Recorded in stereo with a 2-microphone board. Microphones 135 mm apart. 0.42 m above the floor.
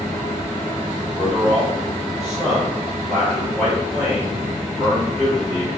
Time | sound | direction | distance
1.2 | a man speaking | 5° left (ahead or behind) | 1.6 m